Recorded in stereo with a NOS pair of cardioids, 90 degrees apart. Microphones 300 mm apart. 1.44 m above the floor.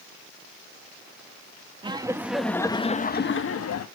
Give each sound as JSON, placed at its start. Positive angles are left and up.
{"t": 1.8, "sound": "laughter", "azimuth_deg": -15, "distance_m": 1.9}